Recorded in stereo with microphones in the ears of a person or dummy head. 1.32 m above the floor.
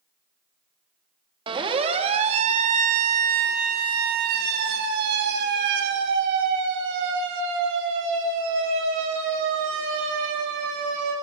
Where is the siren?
25° right (ahead or behind), 2.5 m; by 11.1 s 75° right (ahead or behind), 7 m.